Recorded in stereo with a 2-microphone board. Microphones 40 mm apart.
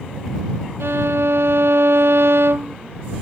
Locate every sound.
0.8 s a violin: 75° right (ahead or behind)